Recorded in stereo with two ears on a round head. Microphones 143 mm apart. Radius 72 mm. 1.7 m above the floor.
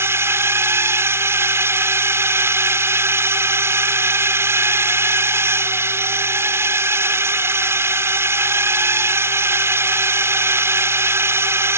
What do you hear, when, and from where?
0.0 s a drone: 15° right (ahead or behind)